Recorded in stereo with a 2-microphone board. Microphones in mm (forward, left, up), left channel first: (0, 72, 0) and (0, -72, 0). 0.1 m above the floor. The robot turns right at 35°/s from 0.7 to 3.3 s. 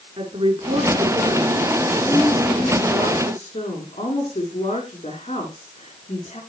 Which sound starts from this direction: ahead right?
A woman speaking, at 0.2 s.